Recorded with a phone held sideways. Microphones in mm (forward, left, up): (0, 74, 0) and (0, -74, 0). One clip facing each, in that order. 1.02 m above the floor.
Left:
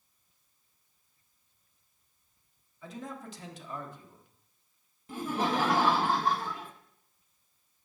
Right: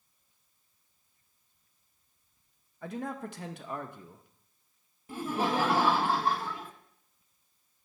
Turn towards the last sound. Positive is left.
turn(degrees=-10)  # may be behind; listen again after turning